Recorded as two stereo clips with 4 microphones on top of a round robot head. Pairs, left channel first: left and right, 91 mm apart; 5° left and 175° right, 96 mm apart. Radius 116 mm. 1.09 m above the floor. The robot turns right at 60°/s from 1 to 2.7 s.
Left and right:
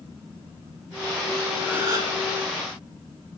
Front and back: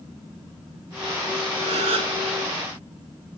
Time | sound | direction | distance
1.6 | a gasp | 170° right | 1.8 m